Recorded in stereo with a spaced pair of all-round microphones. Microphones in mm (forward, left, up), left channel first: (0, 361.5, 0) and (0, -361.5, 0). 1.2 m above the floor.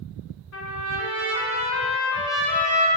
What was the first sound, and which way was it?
A trumpet, 65° left (ahead or behind).